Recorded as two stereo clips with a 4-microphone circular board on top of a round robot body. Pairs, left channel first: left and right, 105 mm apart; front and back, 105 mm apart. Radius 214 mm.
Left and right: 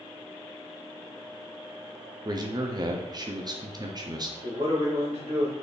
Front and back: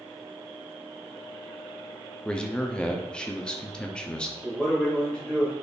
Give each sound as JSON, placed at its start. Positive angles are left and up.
{"t": 2.2, "sound": "a man speaking", "azimuth_deg": -75, "distance_m": 0.9}
{"t": 4.4, "sound": "a man speaking", "azimuth_deg": -80, "distance_m": 2.0}